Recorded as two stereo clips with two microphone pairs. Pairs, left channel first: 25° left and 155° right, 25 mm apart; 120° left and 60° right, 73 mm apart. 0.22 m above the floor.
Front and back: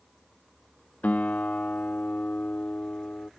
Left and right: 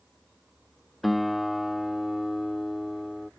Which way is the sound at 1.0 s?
30° left.